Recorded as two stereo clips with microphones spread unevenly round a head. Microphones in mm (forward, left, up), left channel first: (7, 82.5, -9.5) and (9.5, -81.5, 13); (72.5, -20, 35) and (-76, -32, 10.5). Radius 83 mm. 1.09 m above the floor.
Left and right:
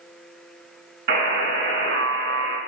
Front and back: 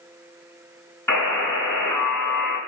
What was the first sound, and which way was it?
A buzzer, 65° right.